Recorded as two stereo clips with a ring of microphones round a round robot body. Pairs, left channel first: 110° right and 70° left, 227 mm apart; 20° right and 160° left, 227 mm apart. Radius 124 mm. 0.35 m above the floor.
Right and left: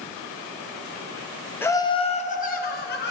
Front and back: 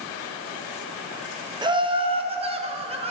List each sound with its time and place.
1.6 s laughter: 175° right, 1.3 m; by 3.1 s 145° right, 2 m